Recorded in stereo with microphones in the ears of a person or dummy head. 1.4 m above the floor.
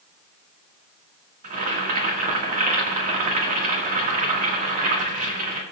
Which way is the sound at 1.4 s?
40° right (ahead or behind).